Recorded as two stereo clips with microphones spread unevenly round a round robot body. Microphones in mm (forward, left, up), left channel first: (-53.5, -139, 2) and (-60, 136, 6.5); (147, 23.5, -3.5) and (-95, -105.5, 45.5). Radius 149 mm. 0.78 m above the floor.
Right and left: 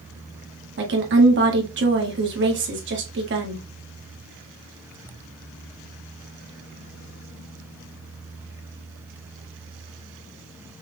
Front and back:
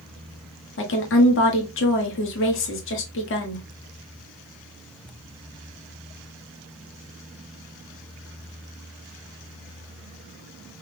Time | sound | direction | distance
0.8 | a woman speaking | 45° left | 1.4 m